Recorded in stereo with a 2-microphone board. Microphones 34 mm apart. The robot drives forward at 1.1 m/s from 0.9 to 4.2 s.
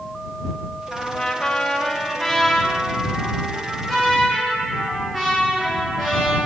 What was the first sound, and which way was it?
A trumpet, 15° left (ahead or behind).